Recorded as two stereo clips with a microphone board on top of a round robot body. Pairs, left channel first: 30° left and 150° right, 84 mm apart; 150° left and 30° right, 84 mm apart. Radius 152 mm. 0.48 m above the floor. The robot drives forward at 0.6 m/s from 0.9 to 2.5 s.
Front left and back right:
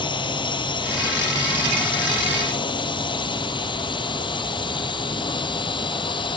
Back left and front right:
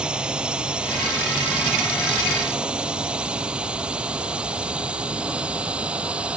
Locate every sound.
0.0 s a drone: 50° left; by 6.4 s 45° left